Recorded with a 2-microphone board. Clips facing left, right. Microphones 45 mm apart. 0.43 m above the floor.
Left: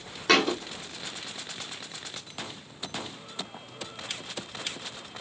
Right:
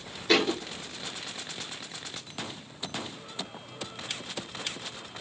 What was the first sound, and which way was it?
A thud, 85° left.